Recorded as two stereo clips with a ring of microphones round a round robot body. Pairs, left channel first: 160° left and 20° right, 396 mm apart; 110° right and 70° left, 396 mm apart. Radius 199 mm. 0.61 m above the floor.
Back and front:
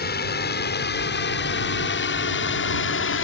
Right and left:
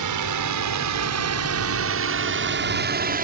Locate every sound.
0.0 s a drone: 95° left; by 3.2 s 125° left